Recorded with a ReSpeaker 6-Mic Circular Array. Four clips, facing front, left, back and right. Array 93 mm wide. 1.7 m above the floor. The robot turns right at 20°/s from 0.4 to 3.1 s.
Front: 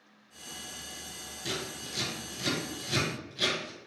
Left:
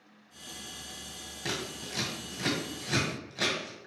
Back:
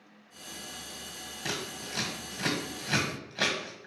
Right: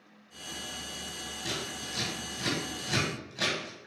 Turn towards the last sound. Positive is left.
turn(degrees=165)